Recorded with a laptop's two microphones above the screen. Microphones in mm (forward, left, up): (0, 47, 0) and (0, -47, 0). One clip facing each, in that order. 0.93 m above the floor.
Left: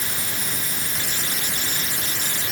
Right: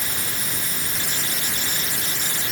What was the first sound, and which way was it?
Only background noise.